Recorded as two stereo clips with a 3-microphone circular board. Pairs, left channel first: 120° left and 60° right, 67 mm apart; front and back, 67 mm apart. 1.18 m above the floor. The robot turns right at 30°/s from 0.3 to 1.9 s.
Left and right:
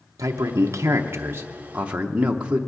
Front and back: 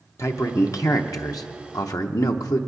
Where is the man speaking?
35° right, 0.7 m; by 2.6 s 10° left, 0.7 m.